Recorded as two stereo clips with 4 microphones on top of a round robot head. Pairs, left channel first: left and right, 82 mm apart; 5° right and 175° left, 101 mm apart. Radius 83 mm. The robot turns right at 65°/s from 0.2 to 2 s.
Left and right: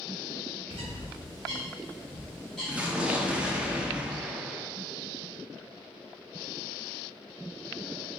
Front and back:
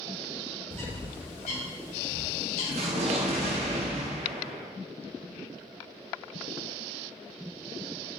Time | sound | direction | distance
0.7 | a bird | 80° right | 0.6 m
2.7 | an explosion | 165° right | 0.6 m